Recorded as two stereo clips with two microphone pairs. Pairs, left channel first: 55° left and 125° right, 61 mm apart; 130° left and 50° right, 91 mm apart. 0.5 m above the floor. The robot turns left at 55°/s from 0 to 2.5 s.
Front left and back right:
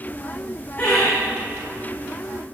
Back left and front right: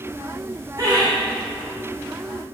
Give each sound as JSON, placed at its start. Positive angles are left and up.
{"t": 0.8, "sound": "laughter", "azimuth_deg": -5, "distance_m": 4.0}